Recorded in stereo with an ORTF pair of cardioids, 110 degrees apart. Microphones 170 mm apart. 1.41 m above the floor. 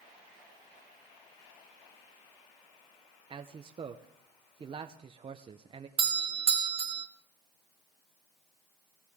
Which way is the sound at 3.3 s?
30° right.